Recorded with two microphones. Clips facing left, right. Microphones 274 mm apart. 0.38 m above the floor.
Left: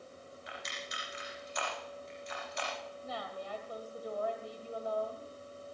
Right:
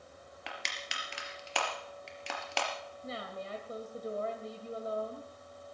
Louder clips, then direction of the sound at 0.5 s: Even; 75° right (ahead or behind).